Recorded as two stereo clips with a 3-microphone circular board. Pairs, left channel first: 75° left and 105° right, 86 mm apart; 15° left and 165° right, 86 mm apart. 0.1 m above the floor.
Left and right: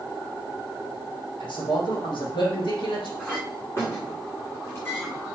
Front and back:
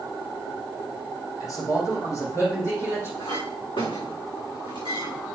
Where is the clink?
15° left, 6.5 m.